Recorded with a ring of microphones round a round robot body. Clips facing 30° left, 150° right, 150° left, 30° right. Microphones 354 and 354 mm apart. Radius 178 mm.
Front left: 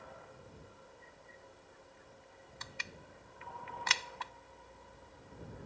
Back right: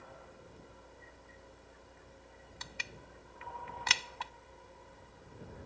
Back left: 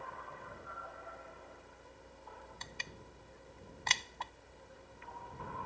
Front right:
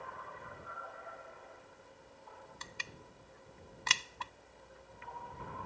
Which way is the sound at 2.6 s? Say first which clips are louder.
Back right 1 dB, back left 1 dB; 105° right.